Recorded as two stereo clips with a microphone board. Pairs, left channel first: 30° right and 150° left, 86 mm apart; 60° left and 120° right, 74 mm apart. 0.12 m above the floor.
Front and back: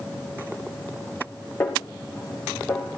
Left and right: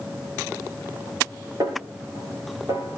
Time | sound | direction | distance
1.6 | a snare drum | 90° right | 5.5 m